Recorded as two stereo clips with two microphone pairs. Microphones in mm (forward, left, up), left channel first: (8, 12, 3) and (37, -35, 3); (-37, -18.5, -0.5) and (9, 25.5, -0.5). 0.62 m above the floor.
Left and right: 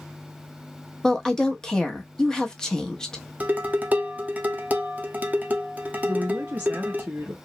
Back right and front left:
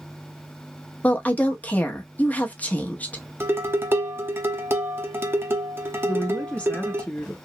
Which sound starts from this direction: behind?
A woman speaking, at 1.0 s.